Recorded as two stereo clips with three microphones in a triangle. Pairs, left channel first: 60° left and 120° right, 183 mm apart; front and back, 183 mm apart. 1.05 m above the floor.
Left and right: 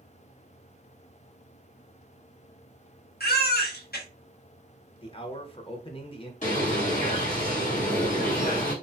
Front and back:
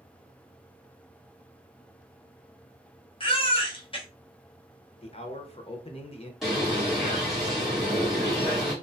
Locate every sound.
3.2 s a baby crying: 60° left, 0.8 m
5.0 s a man speaking: 25° left, 0.6 m
6.4 s a bird: 90° left, 1.5 m